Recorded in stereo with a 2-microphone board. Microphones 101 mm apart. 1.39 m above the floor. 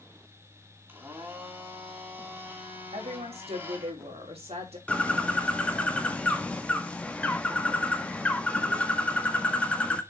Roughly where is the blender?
Right.